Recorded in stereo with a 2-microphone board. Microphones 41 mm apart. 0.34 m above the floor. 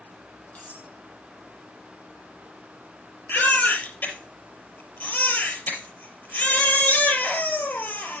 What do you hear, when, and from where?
0.6 s cutlery clinking: 40° left (ahead or behind), 6 m
3.3 s a baby crying: 55° left (ahead or behind), 4 m